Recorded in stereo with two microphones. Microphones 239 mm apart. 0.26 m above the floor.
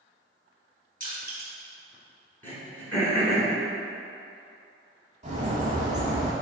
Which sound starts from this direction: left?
Crushing, at 1.0 s.